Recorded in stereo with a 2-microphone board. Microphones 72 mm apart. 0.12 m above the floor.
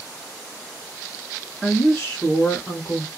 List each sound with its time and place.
1.6 s a woman speaking: centre (ahead or behind), 1.2 m; by 3.1 s 35° left (ahead or behind), 1.3 m